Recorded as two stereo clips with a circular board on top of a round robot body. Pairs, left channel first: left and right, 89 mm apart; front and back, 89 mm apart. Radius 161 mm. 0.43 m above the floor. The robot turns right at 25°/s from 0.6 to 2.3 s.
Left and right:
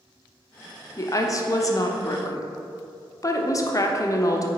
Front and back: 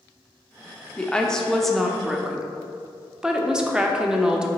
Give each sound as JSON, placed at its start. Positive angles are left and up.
{"t": 1.0, "sound": "a woman speaking", "azimuth_deg": 70, "distance_m": 1.0}